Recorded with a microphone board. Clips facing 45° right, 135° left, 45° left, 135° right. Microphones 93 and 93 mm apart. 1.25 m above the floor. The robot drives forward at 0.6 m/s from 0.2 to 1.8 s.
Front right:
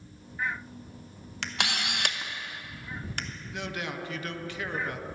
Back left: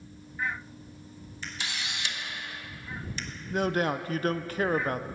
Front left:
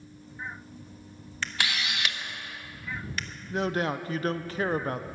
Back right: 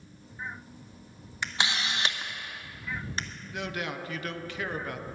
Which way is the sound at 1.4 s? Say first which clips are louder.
Front right 5 dB, back right 1 dB; 60° right.